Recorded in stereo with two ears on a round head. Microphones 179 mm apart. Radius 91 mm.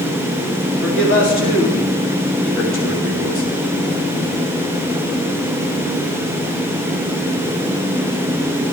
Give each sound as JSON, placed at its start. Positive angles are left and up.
{"t": 0.8, "sound": "a man speaking", "side_deg": 65, "distance_m": 3.5}